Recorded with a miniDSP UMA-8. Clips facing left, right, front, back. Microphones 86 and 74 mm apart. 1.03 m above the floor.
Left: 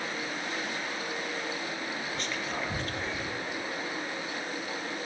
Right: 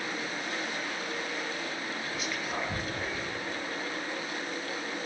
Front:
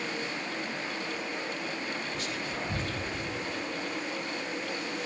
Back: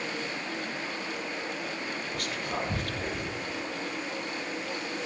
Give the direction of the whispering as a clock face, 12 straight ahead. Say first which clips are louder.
Right 1 dB, back 2 dB; 6 o'clock.